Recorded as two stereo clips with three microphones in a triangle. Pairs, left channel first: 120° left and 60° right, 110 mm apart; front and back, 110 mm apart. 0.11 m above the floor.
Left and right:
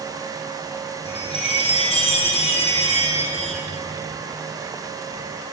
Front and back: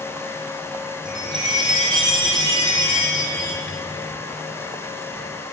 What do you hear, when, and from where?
1.1 s a chime: 135° left, 2.5 m